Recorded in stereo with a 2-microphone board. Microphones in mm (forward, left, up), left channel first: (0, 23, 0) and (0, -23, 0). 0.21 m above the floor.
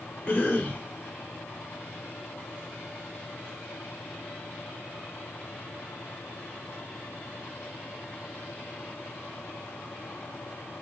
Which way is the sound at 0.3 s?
25° left (ahead or behind).